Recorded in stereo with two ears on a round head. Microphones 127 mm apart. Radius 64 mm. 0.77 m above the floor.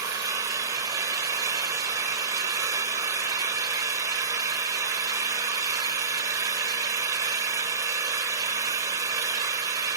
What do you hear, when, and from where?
0.0 s an engine running: 25° right (ahead or behind), 0.8 m